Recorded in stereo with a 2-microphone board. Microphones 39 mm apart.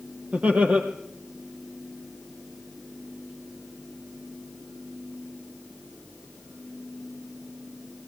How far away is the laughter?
About 4 m.